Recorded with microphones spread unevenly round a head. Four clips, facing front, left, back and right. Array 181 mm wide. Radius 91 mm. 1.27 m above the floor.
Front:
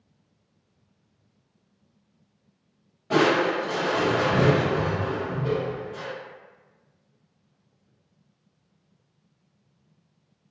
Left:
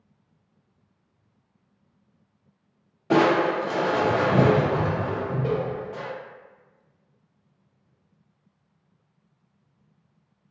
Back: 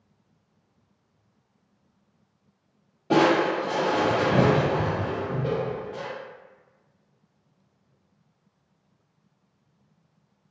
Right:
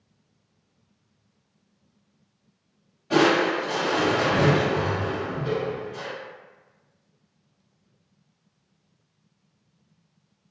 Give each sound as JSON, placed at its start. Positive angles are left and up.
{"t": 3.1, "sound": "crushing", "azimuth_deg": 140, "distance_m": 0.5}